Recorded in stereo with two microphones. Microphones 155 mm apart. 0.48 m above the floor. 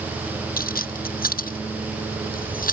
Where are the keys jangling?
70° left (ahead or behind); by 2.7 s 65° left (ahead or behind).